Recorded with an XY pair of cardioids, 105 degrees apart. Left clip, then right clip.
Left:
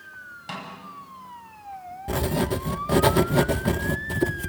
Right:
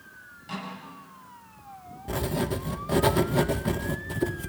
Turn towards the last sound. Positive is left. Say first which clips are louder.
# left 3 dB
turn(degrees=30)